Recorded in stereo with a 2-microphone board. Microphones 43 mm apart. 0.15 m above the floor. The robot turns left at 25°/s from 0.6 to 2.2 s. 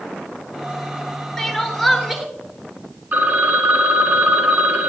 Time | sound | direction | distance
1.4 | crying | 10° left (ahead or behind) | 1.1 m
3.1 | a phone ringing | 40° right (ahead or behind) | 0.9 m